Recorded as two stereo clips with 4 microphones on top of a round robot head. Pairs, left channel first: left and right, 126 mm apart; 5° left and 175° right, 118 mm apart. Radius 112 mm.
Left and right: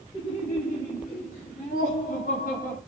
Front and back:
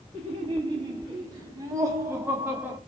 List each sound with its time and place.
0.1 s laughter: 150° left, 3 m; by 2.8 s 115° left, 4 m